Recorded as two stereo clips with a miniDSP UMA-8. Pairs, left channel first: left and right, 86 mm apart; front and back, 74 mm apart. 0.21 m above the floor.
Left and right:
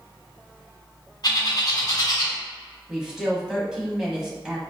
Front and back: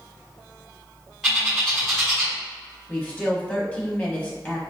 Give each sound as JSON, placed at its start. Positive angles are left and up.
{"t": 1.2, "sound": "a bird", "azimuth_deg": 95, "distance_m": 1.8}
{"t": 2.9, "sound": "a woman speaking", "azimuth_deg": -20, "distance_m": 1.0}